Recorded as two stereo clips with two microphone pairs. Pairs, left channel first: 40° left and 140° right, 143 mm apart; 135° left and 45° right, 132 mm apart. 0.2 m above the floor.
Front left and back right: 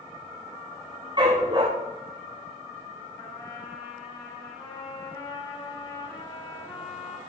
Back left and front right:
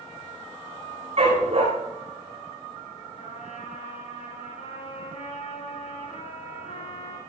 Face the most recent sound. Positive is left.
turn(degrees=100)